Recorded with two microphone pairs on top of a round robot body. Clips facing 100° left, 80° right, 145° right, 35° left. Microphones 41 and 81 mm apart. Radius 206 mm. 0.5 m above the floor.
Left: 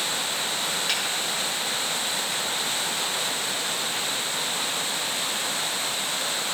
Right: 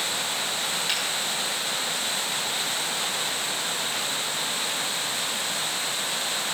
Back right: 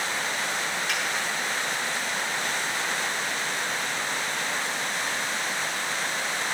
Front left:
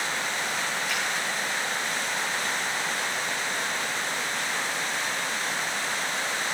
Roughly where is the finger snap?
Behind.